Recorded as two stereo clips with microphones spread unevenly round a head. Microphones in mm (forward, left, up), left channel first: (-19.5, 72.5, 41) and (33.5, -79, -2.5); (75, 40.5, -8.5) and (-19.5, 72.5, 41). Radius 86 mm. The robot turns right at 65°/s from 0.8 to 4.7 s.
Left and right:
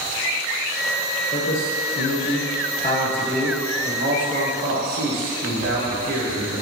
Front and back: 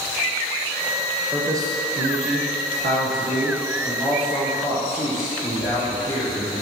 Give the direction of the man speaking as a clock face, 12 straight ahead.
9 o'clock.